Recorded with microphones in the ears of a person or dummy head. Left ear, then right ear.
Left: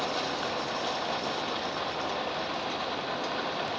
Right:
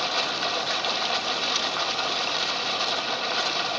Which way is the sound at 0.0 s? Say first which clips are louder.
Right 5 dB; 70° right (ahead or behind).